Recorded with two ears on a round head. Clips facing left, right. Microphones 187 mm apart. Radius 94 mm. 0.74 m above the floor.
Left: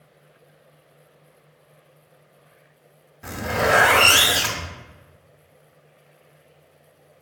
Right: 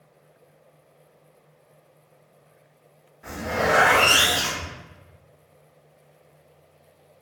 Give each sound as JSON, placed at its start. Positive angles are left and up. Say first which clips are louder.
{"t": 3.2, "sound": "a zipper", "louder": "left 2 dB", "side_deg": 55, "distance_m": 0.8}